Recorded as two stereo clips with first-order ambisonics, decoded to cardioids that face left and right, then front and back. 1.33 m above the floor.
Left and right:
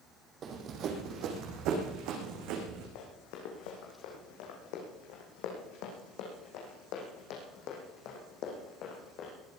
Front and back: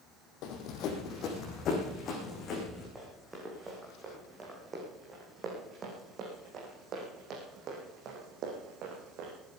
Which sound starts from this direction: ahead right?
Running footsteps, at 0.4 s.